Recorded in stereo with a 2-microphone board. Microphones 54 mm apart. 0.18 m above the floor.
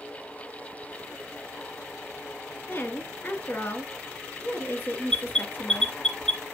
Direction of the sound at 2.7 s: 35° left (ahead or behind).